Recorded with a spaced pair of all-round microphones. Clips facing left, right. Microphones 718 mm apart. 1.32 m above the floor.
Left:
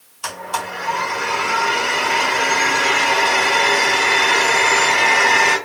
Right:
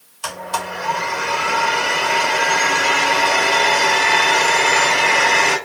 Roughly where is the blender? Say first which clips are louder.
Right 1 dB; right.